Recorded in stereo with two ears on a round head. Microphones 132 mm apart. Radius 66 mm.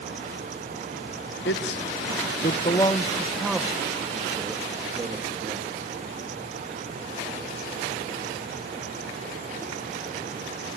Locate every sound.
1.4 s a man speaking: 85° left, 1.5 m; by 5.8 s 25° right (ahead or behind), 4 m